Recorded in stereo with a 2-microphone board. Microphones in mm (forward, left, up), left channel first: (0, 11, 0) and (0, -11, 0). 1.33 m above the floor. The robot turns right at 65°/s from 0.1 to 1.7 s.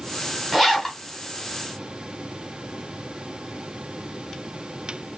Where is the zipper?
5° right, 1.3 m; by 1.0 s 25° left, 1.3 m.